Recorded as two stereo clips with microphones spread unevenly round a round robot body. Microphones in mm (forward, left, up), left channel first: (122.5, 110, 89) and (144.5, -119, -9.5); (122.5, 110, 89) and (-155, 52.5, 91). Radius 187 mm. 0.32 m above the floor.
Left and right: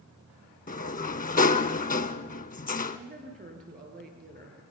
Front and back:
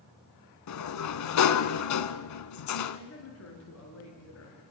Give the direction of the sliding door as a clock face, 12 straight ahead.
11 o'clock.